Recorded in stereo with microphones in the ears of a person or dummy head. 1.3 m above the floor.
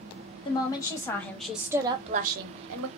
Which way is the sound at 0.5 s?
25° left (ahead or behind).